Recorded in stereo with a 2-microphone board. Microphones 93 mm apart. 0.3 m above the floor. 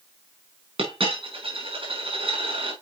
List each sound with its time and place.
0.8 s a dropped coin: 75° right (ahead or behind), 3.5 m